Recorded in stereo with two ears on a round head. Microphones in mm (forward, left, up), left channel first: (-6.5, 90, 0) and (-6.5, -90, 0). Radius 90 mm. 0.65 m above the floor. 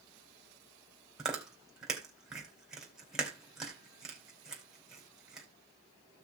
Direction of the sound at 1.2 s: 5° right (ahead or behind).